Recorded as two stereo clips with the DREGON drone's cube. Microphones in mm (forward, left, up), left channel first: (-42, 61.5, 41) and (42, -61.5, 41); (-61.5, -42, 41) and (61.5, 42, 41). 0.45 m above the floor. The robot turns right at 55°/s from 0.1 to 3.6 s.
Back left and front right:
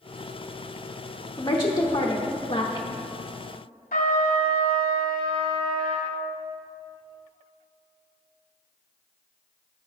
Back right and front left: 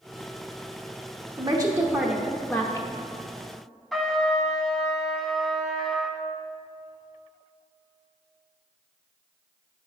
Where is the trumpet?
125° left, 0.8 m.